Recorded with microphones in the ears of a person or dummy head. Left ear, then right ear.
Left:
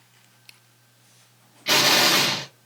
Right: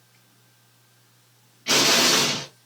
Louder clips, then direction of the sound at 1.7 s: Left 1 dB; 15° left (ahead or behind).